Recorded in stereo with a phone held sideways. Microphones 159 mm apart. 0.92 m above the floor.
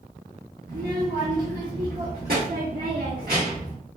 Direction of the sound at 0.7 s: 70° right (ahead or behind).